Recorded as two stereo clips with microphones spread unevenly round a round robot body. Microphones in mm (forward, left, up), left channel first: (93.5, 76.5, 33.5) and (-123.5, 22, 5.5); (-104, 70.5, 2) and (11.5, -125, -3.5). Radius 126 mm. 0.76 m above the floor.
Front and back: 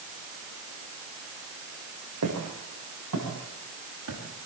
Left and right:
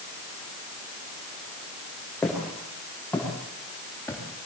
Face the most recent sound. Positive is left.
turn(degrees=-160)